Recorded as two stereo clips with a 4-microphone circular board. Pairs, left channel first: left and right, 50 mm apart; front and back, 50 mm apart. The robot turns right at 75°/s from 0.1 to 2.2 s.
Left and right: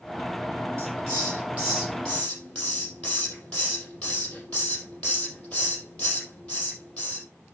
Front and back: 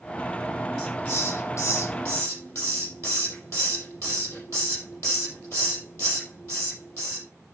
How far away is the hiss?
About 5 m.